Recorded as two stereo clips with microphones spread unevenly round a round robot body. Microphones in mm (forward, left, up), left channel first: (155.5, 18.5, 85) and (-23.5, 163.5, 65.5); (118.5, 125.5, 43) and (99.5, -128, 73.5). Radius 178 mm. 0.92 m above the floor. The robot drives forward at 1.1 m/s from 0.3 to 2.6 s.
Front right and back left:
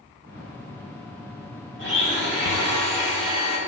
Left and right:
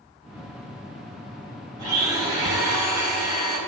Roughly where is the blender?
Behind.